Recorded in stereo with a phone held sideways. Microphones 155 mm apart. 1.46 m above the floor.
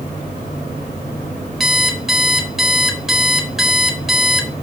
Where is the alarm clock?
Centre (ahead or behind), 4 m.